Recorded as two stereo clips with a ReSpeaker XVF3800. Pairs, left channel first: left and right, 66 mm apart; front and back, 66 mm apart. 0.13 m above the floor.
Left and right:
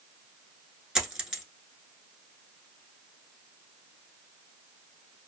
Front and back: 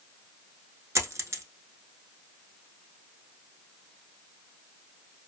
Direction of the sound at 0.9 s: 165° right.